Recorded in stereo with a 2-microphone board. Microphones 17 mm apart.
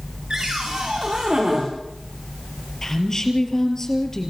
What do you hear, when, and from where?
0.3 s a cupboard door: 50° right (ahead or behind), 5.5 m
2.8 s a woman speaking: 30° left (ahead or behind), 4 m